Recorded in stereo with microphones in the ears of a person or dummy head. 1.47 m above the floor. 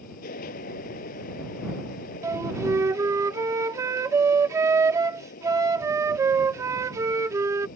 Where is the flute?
15° right (ahead or behind).